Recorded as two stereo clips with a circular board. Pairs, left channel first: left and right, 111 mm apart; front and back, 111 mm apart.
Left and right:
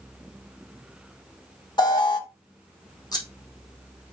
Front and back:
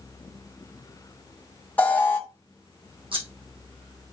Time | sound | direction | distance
1.8 | an alarm | 70° left | 1.8 m
3.1 | scissors | 145° left | 3.5 m